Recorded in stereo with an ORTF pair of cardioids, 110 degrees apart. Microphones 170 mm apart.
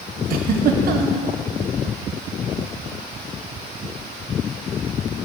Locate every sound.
0.3 s a giggle: 60° right, 1.0 m